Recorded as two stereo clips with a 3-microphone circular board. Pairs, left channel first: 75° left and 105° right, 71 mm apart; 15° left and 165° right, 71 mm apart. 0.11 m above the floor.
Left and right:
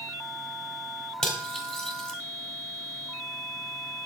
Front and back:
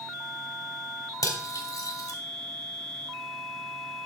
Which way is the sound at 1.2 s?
Straight ahead.